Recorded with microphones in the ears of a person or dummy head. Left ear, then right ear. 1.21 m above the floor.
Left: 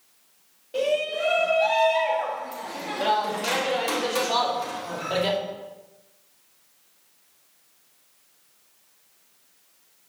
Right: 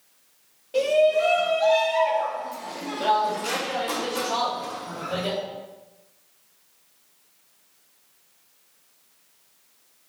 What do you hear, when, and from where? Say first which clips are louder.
0.7 s a shout: right 5 dB; 15° right (ahead or behind), 2.5 m; by 5.4 s 45° left (ahead or behind), 2.5 m